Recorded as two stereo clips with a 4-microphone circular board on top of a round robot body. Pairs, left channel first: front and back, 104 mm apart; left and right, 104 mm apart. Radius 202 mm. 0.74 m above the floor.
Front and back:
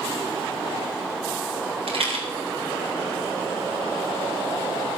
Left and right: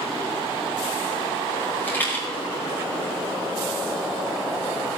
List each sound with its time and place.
1.9 s a rattle: 165° left, 3.5 m